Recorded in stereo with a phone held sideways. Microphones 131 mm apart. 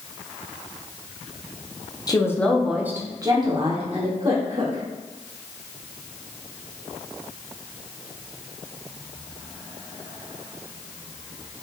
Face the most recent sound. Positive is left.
turn(degrees=-55)  # may be behind; listen again after turning